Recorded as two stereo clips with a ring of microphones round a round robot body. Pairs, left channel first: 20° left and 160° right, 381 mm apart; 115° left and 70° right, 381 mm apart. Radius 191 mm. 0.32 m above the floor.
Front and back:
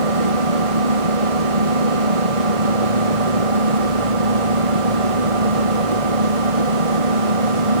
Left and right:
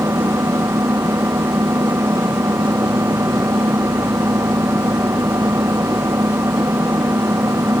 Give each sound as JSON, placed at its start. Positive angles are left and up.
{"t": 0.0, "sound": "an engine running", "azimuth_deg": -150}